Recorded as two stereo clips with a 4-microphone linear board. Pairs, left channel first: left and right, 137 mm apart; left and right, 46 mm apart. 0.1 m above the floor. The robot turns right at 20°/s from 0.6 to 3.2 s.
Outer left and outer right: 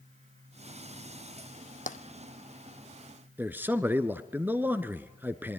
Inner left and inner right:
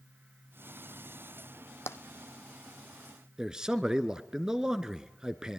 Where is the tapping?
75° left (ahead or behind), 0.9 m.